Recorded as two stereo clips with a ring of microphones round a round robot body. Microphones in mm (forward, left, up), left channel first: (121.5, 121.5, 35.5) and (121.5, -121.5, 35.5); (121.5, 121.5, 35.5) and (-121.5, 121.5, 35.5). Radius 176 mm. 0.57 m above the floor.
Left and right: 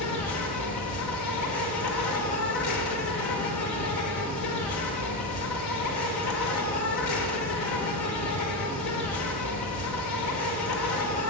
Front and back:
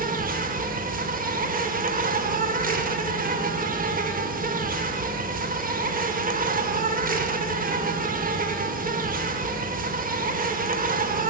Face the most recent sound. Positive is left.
turn(degrees=120)